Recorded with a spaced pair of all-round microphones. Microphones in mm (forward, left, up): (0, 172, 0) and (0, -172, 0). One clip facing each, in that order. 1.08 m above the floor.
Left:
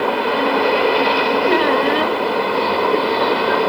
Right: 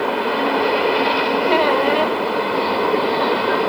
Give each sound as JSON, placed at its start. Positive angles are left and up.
{"t": 1.5, "sound": "a squeak", "side_deg": 25, "distance_m": 1.1}